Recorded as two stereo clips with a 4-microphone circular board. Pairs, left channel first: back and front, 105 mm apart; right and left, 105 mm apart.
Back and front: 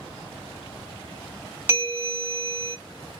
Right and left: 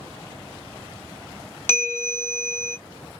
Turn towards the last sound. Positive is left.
turn(degrees=-45)